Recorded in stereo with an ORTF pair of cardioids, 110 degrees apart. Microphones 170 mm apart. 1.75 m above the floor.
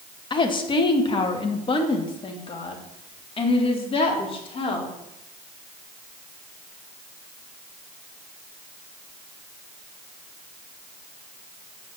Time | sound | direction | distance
0.3 | a woman speaking | 30° left | 2 m